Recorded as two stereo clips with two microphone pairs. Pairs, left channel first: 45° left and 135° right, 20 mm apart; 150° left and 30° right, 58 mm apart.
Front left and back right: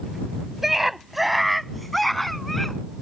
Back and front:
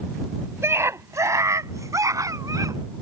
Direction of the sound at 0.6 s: 60° right.